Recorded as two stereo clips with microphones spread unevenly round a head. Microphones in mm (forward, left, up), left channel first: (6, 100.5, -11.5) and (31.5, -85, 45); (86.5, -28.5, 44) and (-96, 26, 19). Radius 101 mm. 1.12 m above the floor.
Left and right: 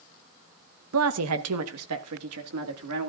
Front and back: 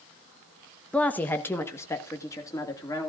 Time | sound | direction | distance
0.9 | a woman speaking | 100° right | 1.0 m